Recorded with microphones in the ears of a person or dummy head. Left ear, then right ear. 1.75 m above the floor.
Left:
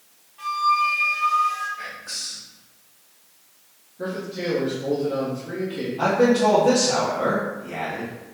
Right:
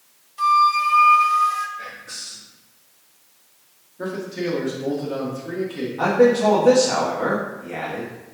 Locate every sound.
0.4 s a flute: 65° right (ahead or behind), 1.0 m
1.8 s whispering: 40° left (ahead or behind), 1.6 m
4.0 s a man speaking: 30° right (ahead or behind), 1.2 m
6.0 s a man speaking: 25° right (ahead or behind), 1.0 m